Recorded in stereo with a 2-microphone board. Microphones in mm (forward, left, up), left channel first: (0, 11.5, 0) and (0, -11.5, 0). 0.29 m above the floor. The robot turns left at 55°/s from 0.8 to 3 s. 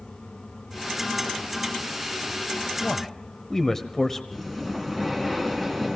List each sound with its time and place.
2.8 s a man speaking: 20° left (ahead or behind), 0.9 m
4.3 s breathing: 10° left (ahead or behind), 3.5 m